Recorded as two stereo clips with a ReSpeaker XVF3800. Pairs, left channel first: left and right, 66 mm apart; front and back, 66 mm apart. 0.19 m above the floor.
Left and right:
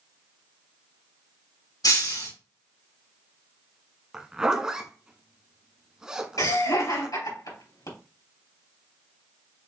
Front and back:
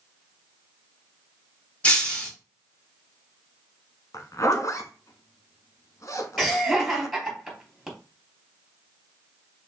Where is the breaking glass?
70° left, 3.5 m.